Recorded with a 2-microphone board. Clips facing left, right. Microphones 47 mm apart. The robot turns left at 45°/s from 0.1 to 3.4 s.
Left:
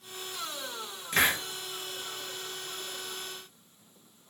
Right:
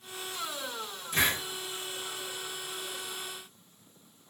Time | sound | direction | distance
1.1 | a hiss | 65° left (ahead or behind) | 0.9 m